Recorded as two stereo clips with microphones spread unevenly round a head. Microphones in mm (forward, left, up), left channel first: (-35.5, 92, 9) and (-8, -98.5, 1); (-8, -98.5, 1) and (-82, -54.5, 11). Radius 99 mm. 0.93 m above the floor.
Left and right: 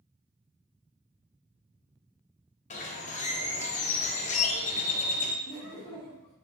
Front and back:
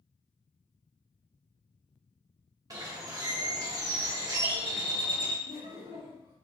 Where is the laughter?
125° left, 1.7 m.